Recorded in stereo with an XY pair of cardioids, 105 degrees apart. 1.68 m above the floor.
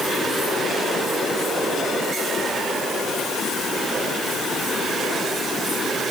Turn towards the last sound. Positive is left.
No sound to turn to.